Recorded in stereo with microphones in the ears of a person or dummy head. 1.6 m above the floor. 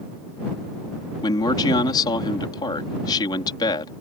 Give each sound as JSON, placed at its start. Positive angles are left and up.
{"t": 1.2, "sound": "a man speaking", "side_deg": 25}